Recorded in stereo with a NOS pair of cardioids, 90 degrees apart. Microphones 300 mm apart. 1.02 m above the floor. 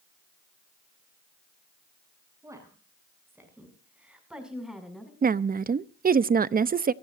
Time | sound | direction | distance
2.4 | a woman speaking | 10° right | 8 m
5.2 | a woman speaking | 30° right | 0.8 m